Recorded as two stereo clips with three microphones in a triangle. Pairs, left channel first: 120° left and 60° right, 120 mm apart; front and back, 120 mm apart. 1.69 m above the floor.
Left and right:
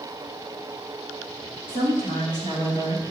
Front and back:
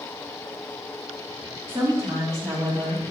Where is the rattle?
I don't hear a rattle.